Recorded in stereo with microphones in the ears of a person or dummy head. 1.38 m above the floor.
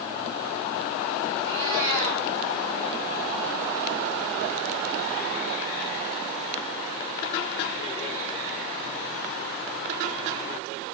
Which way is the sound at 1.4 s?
65° right (ahead or behind).